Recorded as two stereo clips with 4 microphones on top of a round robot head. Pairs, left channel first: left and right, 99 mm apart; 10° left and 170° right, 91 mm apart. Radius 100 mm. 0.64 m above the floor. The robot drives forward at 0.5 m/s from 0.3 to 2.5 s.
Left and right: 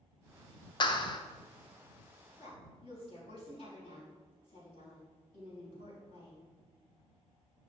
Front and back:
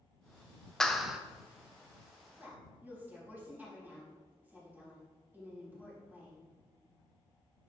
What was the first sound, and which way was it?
A clap, 95° left.